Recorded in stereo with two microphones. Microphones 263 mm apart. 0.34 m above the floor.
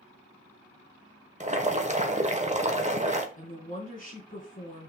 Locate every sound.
1.4 s boiling: 25° right (ahead or behind), 1.0 m
3.4 s a woman speaking: 30° left (ahead or behind), 3.5 m